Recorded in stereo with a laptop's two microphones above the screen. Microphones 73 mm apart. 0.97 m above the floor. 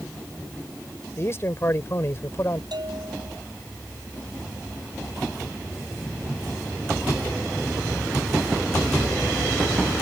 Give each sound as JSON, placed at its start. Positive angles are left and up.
{"t": 1.2, "sound": "a man speaking", "side_deg": 35}
{"t": 2.7, "sound": "a bell", "side_deg": -75}